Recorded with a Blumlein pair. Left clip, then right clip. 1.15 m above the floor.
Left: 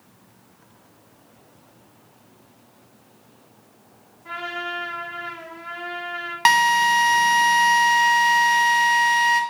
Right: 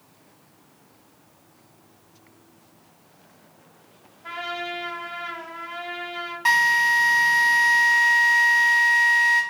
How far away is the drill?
About 0.7 m.